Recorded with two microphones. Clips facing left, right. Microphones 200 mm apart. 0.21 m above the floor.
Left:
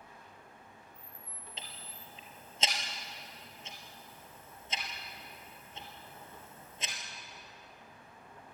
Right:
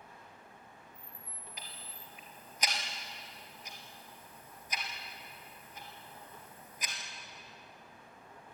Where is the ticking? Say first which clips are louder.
Left 1 dB; 25° left (ahead or behind), 2.5 m.